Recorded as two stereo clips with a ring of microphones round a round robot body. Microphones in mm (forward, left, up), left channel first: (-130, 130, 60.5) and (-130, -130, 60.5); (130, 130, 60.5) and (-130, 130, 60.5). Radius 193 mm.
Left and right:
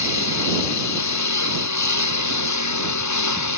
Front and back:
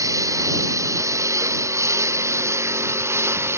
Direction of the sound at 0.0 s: 100° left.